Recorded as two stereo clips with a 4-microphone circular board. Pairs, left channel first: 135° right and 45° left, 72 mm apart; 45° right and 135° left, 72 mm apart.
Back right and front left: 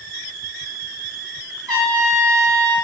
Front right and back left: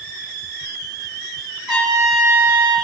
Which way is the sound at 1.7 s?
45° left.